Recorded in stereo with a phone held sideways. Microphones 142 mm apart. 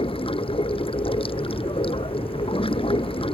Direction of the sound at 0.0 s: 40° left (ahead or behind).